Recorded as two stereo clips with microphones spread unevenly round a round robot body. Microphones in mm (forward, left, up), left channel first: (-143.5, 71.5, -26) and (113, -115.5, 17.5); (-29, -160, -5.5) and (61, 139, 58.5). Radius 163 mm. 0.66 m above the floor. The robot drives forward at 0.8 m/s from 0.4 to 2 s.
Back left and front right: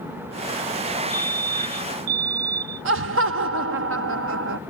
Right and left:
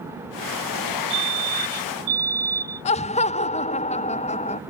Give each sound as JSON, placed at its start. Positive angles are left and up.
{"t": 1.1, "sound": "a fire alarm", "azimuth_deg": -5}
{"t": 2.9, "sound": "laughter", "azimuth_deg": -70}